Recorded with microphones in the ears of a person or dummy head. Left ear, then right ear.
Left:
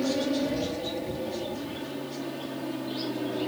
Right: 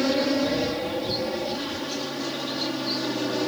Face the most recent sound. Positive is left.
turn(degrees=-60)  # may be behind; listen again after turning